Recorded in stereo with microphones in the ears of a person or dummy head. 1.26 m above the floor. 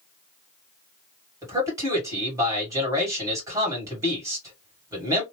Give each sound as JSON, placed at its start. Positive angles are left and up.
{"t": 1.4, "sound": "a man speaking", "side_deg": -15, "distance_m": 2.0}